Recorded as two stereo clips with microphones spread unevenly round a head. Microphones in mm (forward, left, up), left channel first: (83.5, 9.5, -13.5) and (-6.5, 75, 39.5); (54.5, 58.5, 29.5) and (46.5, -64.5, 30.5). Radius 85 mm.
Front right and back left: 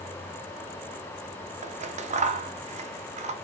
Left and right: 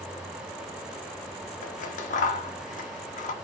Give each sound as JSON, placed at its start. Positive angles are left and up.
{"t": 1.6, "sound": "scissors", "azimuth_deg": 105, "distance_m": 0.5}